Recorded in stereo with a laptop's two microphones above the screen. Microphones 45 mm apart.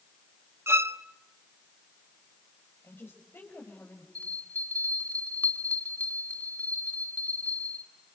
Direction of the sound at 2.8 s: 55° left (ahead or behind).